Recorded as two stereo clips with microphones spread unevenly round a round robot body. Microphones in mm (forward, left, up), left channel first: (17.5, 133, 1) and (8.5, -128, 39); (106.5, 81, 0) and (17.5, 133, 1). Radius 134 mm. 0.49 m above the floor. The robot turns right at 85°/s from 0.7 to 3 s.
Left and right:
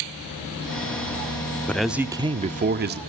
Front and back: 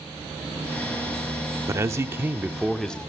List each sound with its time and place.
1.7 s a man speaking: 150° left, 0.9 m; by 3.0 s 100° right, 0.9 m